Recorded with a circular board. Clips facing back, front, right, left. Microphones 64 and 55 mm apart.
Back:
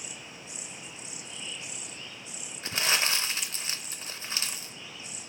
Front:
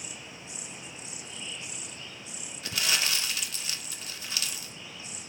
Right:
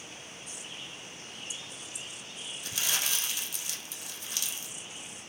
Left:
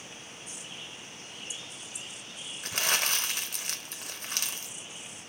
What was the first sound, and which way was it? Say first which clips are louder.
Crumpling: back 2 dB, left 5 dB; 125° left.